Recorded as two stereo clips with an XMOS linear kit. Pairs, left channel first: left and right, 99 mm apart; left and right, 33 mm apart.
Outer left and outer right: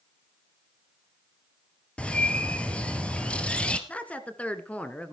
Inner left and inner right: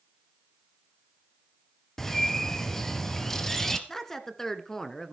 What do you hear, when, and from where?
2.0 s a bird: 10° left (ahead or behind), 1.7 m
3.9 s a woman speaking: 15° left (ahead or behind), 1.5 m